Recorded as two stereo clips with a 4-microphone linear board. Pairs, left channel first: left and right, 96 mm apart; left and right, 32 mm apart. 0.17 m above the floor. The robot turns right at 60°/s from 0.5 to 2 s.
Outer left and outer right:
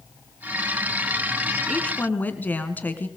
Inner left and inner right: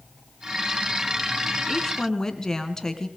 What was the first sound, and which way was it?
A woman speaking, 5° left (ahead or behind).